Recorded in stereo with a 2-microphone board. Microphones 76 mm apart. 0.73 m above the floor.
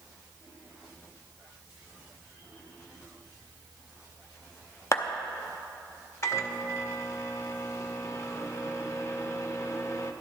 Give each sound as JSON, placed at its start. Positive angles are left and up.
{"t": 4.9, "sound": "a clap", "side_deg": 40, "distance_m": 0.7}
{"t": 6.2, "sound": "a microwave", "side_deg": 40, "distance_m": 0.7}